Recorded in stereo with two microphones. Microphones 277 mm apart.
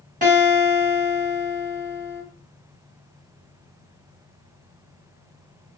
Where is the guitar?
30° right (ahead or behind), 1.6 m.